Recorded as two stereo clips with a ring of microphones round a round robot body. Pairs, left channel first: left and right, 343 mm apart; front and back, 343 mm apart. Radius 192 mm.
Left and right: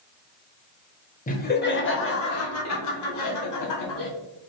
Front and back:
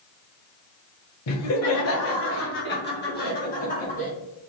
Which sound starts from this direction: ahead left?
Laughter, at 1.3 s.